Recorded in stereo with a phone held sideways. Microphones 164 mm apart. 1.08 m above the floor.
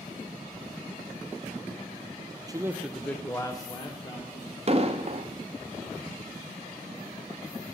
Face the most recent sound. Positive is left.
turn(degrees=-45)  # may be behind; listen again after turning